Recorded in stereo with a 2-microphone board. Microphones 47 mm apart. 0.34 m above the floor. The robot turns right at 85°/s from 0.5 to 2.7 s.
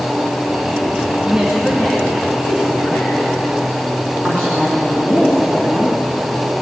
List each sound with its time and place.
1.2 s a woman speaking: 15° right (ahead or behind), 2 m; by 3.1 s 55° left (ahead or behind), 2 m
4.2 s a woman speaking: 15° left (ahead or behind), 3 m